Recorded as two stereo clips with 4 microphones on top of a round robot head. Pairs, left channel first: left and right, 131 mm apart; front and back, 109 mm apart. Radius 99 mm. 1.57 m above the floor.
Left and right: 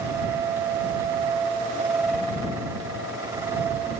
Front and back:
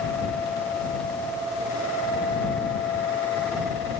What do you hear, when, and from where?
Only background noise.